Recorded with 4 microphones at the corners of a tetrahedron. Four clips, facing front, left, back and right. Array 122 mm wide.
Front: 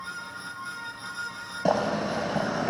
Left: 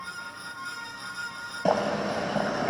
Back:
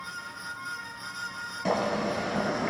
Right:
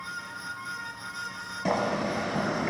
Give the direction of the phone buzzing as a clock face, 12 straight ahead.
I don't hear a phone buzzing.